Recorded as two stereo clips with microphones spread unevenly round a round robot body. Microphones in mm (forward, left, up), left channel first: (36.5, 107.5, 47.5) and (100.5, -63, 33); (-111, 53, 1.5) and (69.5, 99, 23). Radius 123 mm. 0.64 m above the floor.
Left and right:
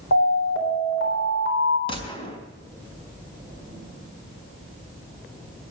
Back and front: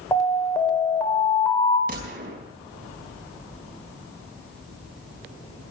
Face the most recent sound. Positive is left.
turn(degrees=50)